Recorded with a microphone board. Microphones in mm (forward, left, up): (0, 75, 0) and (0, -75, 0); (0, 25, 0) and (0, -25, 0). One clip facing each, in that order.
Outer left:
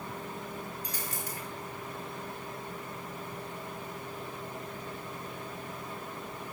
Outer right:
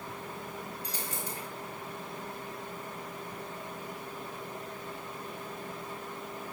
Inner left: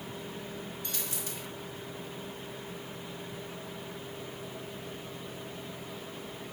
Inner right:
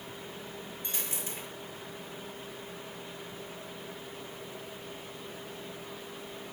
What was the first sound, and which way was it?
A dropped coin, 30° right (ahead or behind).